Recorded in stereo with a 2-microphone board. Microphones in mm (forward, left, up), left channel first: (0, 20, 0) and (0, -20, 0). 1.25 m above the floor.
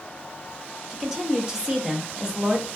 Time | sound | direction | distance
0.9 | a woman speaking | 10° right (ahead or behind) | 0.6 m